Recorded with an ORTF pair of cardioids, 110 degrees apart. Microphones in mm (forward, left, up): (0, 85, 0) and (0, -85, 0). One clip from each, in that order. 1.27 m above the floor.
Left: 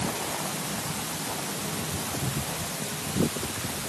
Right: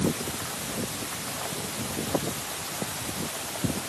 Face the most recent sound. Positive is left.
No sound to turn to.